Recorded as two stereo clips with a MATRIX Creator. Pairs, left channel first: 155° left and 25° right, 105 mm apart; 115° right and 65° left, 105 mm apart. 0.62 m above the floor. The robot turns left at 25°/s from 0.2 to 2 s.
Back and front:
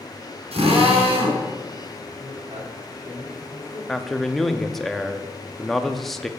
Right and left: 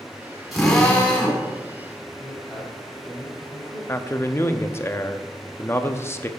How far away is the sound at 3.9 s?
About 0.7 m.